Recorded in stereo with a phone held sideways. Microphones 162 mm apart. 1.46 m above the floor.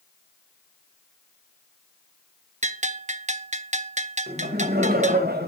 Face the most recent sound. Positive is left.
turn(degrees=-80)